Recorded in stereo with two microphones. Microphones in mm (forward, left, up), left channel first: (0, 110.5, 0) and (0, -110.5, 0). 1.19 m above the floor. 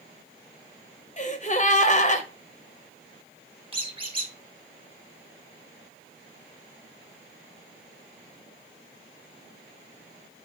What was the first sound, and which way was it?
A gasp, 35° left (ahead or behind).